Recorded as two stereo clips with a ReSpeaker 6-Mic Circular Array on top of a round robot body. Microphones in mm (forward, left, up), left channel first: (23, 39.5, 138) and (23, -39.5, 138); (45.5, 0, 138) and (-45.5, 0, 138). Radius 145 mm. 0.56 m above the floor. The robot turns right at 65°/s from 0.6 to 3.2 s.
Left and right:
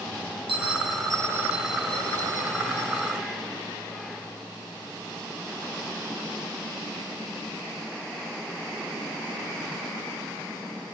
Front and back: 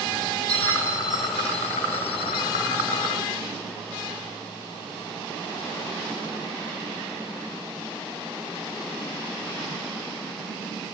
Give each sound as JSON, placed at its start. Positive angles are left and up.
{"t": 0.5, "sound": "a bell", "azimuth_deg": -75, "distance_m": 0.9}